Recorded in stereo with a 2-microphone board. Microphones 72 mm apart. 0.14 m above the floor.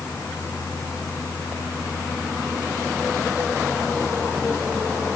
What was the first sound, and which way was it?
Only background noise.